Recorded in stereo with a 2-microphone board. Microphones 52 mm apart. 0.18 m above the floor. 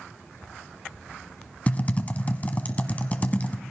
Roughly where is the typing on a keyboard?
Left.